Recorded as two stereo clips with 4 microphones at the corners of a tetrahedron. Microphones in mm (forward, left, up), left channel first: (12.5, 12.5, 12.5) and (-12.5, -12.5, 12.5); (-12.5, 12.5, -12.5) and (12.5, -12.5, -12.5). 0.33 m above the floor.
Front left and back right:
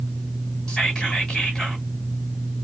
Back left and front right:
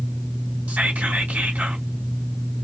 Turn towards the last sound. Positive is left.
turn(degrees=-20)